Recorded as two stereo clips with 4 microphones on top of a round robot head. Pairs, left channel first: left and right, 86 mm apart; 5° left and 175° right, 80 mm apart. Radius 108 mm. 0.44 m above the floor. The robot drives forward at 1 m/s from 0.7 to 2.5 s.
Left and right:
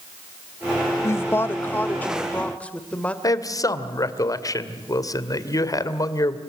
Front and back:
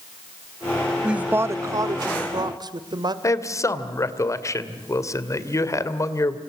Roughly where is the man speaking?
Ahead left.